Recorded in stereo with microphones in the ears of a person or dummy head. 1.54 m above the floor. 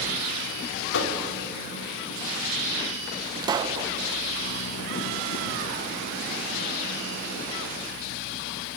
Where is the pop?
25° right (ahead or behind), 1.0 m.